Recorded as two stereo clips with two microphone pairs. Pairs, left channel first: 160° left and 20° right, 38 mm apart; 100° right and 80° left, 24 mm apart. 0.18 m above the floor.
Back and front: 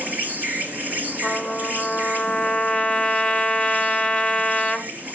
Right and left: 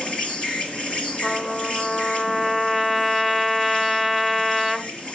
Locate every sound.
0.0 s an insect: 60° right, 4 m
1.2 s a trumpet: 155° right, 1.3 m